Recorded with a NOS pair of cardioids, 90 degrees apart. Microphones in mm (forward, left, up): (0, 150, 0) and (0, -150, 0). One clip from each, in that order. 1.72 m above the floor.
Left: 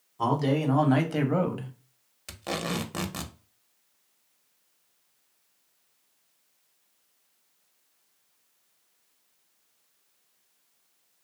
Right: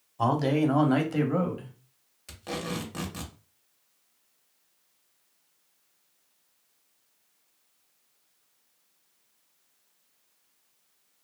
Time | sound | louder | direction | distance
0.2 | a man speaking | right 1 dB | 20° right | 0.9 m
2.3 | tape being pulled | left 3 dB | 25° left | 0.5 m